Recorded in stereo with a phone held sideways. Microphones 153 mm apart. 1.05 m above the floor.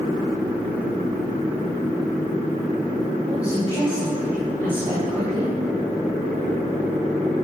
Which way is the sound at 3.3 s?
45° right (ahead or behind).